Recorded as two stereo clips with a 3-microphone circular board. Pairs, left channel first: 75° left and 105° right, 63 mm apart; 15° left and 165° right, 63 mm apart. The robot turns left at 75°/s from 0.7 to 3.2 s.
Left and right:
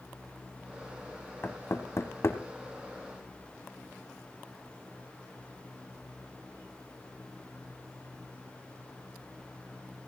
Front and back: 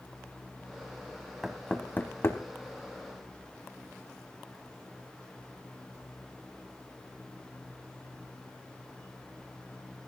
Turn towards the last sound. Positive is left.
turn(degrees=-25)